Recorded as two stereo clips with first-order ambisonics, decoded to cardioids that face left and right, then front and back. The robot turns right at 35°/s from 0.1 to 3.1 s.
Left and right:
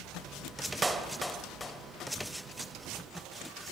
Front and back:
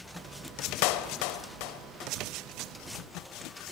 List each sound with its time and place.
0.8 s a clap: 10° right, 2.5 m; by 2.1 s 35° left, 2.5 m